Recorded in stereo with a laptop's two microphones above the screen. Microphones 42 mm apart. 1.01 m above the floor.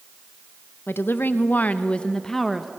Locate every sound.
0.9 s a woman speaking: 65° left (ahead or behind), 1.0 m; by 2.7 s centre (ahead or behind), 1.0 m